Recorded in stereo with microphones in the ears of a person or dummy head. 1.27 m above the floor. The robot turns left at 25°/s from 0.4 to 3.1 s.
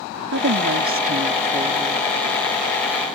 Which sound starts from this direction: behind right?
A woman speaking, at 0.3 s.